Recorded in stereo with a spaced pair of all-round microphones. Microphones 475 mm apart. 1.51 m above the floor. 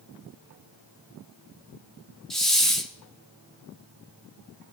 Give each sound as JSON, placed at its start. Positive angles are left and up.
{"t": 2.3, "sound": "a hiss", "side_deg": 0, "distance_m": 1.2}